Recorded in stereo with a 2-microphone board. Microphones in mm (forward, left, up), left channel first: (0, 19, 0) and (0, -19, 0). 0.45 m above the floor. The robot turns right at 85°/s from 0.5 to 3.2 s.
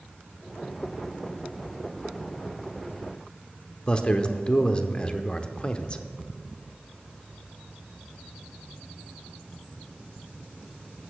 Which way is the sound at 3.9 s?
25° left (ahead or behind).